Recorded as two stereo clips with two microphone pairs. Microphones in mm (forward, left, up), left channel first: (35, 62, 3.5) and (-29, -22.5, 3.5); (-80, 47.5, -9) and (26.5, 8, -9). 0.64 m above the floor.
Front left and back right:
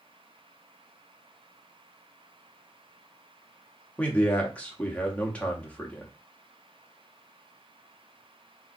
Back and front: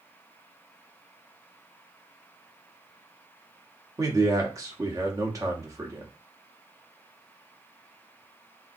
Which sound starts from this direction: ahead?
A man speaking, at 4.0 s.